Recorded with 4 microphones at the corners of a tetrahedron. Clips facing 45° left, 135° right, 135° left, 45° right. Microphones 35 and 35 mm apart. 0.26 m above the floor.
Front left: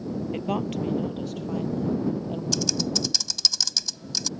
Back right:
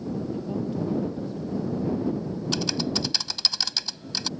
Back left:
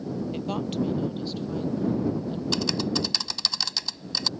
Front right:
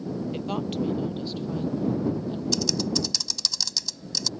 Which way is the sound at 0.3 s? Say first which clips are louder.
Front left 2 dB, back left 1 dB; 40° left.